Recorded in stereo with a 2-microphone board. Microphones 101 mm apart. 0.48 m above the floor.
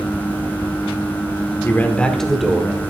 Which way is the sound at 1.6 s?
20° left (ahead or behind).